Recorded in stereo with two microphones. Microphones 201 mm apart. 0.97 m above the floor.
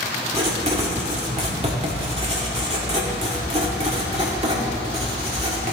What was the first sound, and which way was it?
Writing, 30° right (ahead or behind).